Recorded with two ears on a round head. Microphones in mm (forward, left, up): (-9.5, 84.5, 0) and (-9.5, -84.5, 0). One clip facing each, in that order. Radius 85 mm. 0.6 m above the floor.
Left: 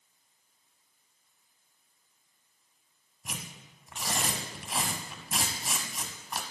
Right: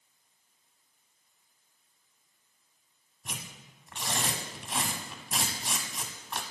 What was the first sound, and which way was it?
Tearing paper, 5° left (ahead or behind).